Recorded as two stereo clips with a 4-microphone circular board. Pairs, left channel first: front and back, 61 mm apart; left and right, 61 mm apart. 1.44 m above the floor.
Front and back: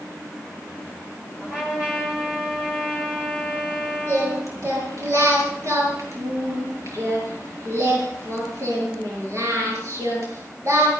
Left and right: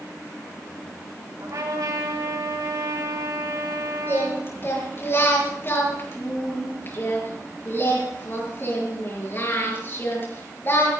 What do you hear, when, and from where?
1.4 s a trumpet: 105° right, 6 m
4.1 s singing: 145° left, 6.5 m